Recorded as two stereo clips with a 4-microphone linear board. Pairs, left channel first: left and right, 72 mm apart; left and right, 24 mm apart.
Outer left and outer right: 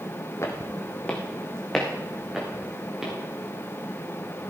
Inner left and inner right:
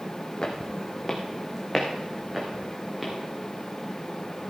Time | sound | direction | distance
0.4 | footsteps | 40° left (ahead or behind) | 1.6 m